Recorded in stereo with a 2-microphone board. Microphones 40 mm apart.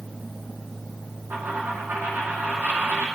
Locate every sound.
1.3 s a dropped coin: 60° right (ahead or behind), 5.5 m